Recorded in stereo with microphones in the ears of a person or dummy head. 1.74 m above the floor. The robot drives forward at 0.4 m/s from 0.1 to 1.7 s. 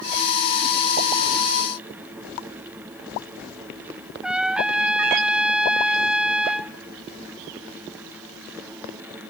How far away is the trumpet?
About 0.6 m.